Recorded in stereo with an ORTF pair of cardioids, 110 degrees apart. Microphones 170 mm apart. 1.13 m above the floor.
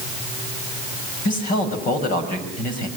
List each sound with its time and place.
1.2 s a man speaking: 60° left, 6.5 m